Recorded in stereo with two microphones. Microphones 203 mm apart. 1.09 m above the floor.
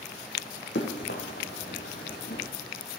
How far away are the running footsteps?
About 3 m.